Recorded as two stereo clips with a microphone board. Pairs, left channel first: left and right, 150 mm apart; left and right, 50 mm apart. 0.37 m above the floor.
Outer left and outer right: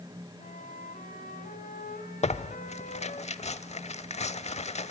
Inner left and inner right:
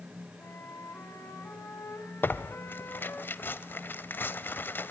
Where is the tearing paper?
45° left (ahead or behind), 0.9 m.